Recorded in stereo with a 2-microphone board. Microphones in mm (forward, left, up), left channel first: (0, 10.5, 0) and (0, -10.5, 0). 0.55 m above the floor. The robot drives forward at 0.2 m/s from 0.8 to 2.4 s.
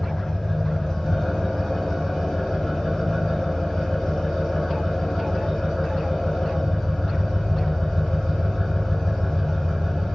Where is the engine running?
35° left (ahead or behind), 1.4 m; by 10.2 s 30° left (ahead or behind), 1.7 m.